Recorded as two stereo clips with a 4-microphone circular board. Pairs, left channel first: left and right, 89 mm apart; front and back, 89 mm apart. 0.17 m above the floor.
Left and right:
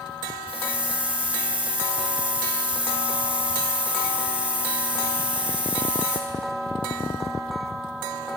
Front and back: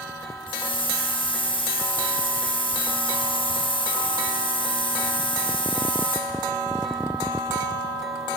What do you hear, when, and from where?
0.5 s a hiss: 15° right, 2 m